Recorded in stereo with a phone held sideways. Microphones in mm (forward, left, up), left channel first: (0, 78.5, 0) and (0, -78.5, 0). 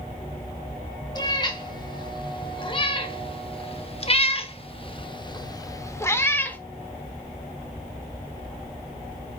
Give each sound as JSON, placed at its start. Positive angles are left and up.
{"t": 1.1, "sound": "a cat meowing", "side_deg": 30, "distance_m": 2.0}